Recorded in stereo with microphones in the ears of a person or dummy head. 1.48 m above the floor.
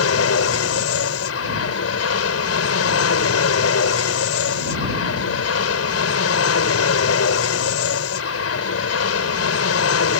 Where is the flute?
No flute in this recording.